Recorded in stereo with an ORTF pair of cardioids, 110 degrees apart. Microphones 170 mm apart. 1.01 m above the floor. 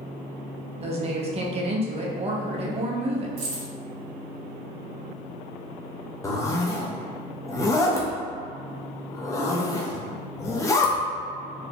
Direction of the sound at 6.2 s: 20° left.